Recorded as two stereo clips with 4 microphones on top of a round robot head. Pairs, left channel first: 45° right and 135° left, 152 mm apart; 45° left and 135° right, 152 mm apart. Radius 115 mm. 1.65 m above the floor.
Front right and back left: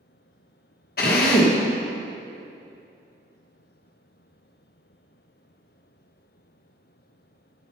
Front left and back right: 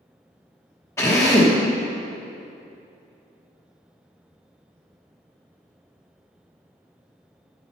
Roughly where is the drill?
Ahead right.